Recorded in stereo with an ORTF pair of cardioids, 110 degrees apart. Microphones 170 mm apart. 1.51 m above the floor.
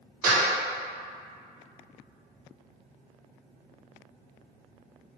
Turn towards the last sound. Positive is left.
turn(degrees=-55)